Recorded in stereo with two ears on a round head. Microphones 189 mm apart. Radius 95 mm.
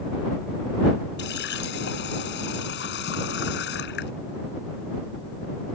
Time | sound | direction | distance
1.2 | a running tap | 55° left (ahead or behind) | ?